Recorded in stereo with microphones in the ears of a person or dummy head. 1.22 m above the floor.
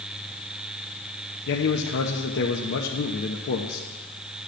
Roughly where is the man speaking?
Left.